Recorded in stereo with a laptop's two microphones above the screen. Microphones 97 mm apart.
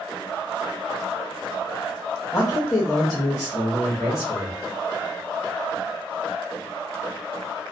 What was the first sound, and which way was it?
A man speaking, 35° left (ahead or behind).